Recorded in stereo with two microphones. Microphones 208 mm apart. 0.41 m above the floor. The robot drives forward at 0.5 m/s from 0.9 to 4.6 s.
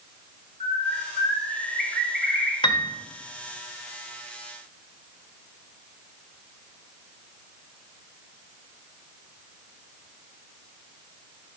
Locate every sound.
0.6 s a bird: 45° right (ahead or behind), 3 m; by 2.5 s 55° right (ahead or behind), 2.5 m
2.6 s a piano: 20° left (ahead or behind), 0.8 m; by 2.9 s 25° left (ahead or behind), 0.7 m